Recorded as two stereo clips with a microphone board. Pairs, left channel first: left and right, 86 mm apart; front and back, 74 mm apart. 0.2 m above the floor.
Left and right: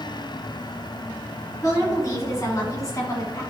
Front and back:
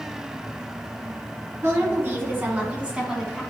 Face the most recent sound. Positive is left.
turn(degrees=90)